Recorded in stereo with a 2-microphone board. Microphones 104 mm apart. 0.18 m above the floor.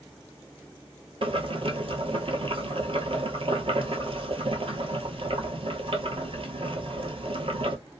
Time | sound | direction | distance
1.2 | boiling | 60° right (ahead or behind) | 0.8 m